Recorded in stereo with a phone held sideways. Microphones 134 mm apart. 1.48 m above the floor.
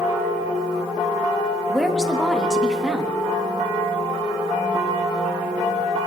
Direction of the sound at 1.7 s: 5° right (ahead or behind).